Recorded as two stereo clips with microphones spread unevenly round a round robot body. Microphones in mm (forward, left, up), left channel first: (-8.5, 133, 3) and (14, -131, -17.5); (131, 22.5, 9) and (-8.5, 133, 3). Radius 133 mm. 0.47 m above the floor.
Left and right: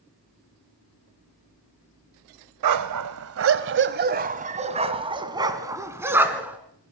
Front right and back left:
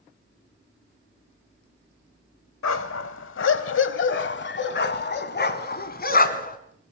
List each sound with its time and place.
2.6 s a dog barking: 65° right, 1.0 m; by 6.6 s straight ahead, 2 m